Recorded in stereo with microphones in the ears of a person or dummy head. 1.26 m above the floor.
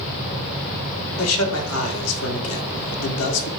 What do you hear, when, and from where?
1.2 s a man speaking: 70° left (ahead or behind), 1.4 m